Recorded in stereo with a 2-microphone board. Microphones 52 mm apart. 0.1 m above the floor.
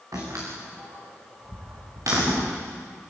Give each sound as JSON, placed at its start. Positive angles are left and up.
{"t": 0.1, "sound": "a door slam", "side_deg": -75, "distance_m": 6.0}